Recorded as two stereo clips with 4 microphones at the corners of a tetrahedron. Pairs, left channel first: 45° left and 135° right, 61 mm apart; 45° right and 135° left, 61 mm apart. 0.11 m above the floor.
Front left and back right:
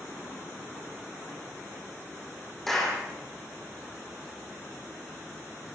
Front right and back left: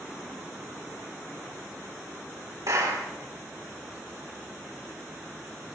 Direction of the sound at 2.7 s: 130° left.